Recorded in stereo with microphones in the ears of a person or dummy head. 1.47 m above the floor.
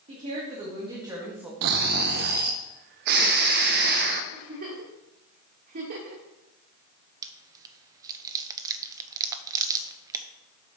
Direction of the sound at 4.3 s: 50° right (ahead or behind).